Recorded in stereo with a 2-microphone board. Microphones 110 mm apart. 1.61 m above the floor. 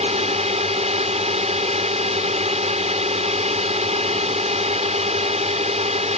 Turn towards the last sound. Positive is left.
turn(degrees=-80)